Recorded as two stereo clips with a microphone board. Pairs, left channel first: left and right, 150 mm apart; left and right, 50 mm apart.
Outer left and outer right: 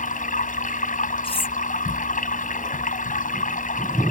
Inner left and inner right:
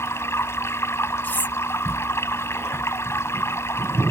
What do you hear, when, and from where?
0.0 s running water: 60° left (ahead or behind)
1.2 s cutlery clinking: 35° left (ahead or behind)